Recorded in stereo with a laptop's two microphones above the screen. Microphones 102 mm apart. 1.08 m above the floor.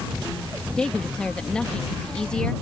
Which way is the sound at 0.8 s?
10° left (ahead or behind).